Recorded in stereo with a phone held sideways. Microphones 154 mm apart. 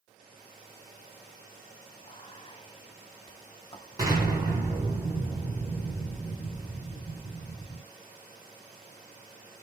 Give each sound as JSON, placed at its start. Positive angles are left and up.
{"t": 2.0, "sound": "whispering", "side_deg": 35, "distance_m": 0.6}
{"t": 4.0, "sound": "an explosion", "side_deg": -25, "distance_m": 2.0}